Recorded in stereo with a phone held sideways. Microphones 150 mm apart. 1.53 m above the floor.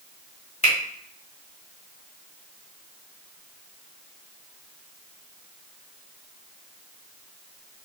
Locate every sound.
0.6 s a finger snap: 45° left (ahead or behind), 1.4 m